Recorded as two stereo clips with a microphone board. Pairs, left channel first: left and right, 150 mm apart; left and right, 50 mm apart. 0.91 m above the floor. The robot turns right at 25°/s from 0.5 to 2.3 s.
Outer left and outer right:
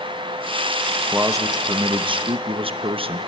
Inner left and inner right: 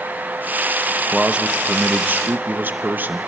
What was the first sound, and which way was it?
A man speaking, 15° right (ahead or behind).